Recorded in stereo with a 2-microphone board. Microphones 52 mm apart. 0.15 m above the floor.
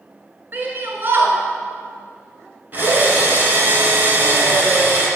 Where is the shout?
40° right (ahead or behind), 1.8 m.